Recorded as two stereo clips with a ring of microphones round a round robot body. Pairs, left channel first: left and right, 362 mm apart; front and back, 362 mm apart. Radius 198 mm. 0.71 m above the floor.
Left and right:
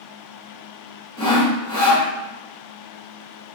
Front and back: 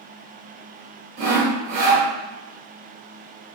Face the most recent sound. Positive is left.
turn(degrees=165)